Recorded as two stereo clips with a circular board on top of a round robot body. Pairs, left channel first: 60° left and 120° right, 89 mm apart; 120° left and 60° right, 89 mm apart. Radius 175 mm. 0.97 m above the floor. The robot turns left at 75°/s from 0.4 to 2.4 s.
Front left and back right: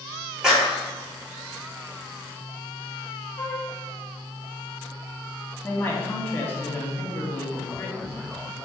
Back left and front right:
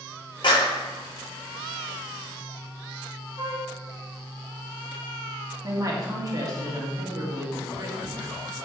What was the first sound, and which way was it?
A clap, 160° left.